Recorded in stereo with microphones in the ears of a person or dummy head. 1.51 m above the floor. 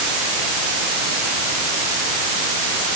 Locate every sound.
Only background noise.